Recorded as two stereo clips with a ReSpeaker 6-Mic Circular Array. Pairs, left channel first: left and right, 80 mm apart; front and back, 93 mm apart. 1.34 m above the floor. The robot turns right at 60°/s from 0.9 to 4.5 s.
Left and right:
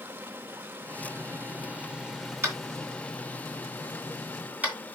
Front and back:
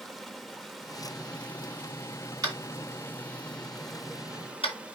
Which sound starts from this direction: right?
Running water, at 0.0 s.